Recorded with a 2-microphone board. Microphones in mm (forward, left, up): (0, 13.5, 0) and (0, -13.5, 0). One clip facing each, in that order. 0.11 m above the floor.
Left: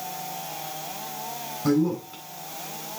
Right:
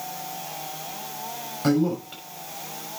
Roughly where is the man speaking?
Right.